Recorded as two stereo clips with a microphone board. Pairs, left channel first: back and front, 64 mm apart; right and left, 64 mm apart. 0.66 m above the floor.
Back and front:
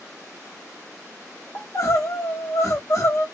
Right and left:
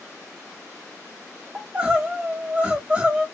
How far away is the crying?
About 0.8 m.